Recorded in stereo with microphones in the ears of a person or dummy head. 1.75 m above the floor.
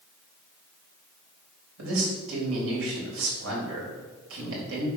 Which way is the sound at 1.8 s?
85° right.